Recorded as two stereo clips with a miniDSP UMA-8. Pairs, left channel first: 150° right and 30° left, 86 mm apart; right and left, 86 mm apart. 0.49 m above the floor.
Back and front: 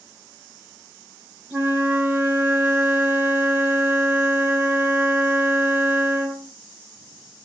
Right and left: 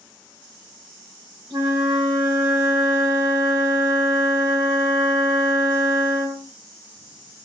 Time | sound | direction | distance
1.5 | a flute | 100° left | 1.9 m